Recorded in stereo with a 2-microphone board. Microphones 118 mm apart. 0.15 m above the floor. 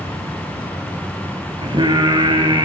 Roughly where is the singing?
Right.